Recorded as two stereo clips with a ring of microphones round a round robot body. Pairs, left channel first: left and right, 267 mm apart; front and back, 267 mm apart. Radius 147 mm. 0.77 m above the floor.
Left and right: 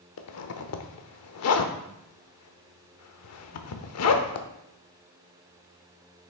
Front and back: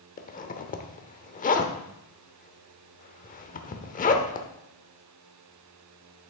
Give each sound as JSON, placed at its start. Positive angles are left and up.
{"t": 0.2, "sound": "a zipper", "azimuth_deg": 60, "distance_m": 0.8}